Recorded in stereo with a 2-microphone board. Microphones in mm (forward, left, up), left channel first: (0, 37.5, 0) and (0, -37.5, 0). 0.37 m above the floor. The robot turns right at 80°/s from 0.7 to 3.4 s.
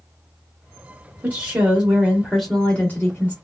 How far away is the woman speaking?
About 0.8 m.